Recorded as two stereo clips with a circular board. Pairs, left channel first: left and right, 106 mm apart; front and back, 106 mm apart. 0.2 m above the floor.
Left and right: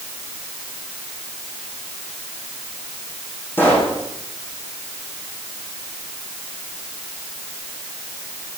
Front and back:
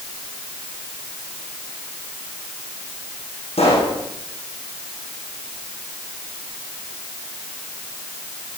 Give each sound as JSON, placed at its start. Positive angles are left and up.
{"t": 3.6, "sound": "a pop", "azimuth_deg": 20, "distance_m": 7.0}